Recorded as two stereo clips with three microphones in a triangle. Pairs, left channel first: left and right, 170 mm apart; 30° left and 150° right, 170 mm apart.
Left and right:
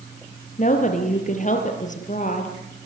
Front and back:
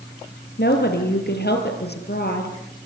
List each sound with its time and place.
0.6 s a woman speaking: 45° left, 4.5 m